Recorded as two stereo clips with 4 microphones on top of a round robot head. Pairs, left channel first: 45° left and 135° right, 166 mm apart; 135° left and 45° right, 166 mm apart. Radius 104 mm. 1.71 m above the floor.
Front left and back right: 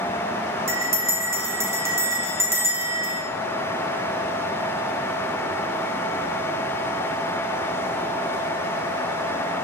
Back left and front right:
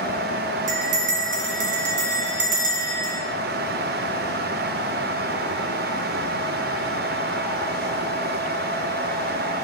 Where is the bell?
65° right, 1.5 m.